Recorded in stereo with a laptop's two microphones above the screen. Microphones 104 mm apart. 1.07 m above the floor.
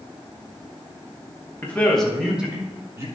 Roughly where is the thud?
No thud in this recording.